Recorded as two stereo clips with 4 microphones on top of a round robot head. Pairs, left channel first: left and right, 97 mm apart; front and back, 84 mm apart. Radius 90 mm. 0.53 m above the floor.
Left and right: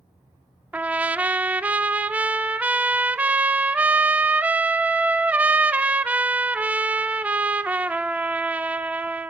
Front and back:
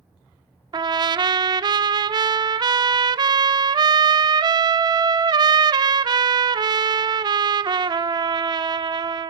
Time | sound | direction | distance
0.7 | a trumpet | 165° right | 1.0 m